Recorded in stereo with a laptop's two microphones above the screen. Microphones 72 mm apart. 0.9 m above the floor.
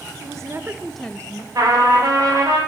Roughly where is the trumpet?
Right.